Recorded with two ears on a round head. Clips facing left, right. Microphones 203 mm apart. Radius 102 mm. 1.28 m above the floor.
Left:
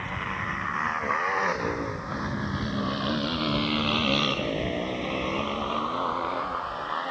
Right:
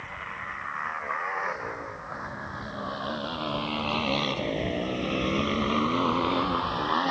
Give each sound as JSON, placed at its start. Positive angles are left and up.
{"t": 0.0, "sound": "a motorcycle", "side_deg": 60}